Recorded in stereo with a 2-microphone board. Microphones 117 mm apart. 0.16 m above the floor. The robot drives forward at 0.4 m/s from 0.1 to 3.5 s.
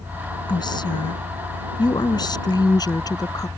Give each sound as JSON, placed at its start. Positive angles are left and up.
{"t": 0.5, "sound": "a woman speaking", "side_deg": 40}